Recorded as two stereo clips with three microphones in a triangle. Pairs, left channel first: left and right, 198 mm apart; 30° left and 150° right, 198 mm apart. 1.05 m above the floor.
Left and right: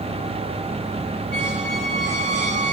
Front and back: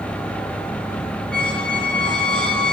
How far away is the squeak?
About 10 m.